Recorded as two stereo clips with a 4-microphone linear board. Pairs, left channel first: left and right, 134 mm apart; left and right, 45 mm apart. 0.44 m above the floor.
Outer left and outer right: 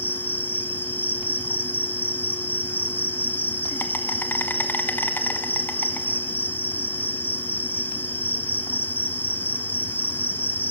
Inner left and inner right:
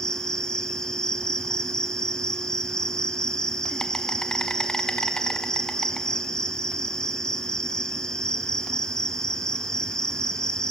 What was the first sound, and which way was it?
An insect, 15° left (ahead or behind).